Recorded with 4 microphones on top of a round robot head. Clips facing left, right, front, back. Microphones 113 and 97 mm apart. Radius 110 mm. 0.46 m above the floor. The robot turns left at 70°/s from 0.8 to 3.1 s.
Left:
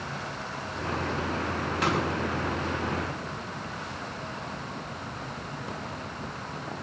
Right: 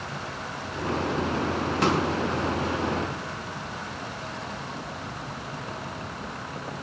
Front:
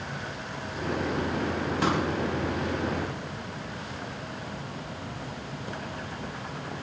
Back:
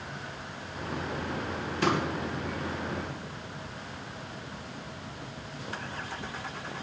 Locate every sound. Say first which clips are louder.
1.8 s a pop: right 3 dB, even; 40° right, 4 m; by 2.0 s 55° right, 4 m